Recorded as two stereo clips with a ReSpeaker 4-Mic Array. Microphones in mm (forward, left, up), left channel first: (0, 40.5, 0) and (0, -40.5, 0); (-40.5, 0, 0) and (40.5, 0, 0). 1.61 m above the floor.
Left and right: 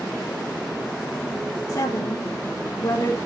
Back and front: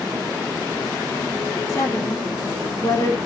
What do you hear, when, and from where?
1.7 s a woman speaking: 135° left, 4 m